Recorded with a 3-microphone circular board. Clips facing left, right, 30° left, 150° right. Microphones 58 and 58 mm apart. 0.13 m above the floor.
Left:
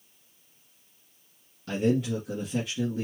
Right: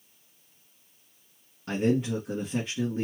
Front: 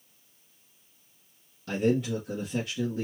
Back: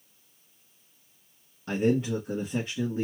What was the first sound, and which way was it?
A man speaking, 120° right.